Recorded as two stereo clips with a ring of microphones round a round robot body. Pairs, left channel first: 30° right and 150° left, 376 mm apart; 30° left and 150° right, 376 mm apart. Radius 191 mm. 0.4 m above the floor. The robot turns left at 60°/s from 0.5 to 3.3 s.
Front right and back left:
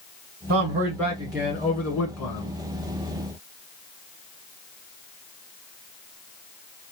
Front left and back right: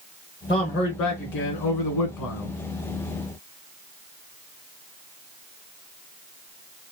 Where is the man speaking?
105° left, 1.7 m; by 2.5 s 15° right, 1.7 m.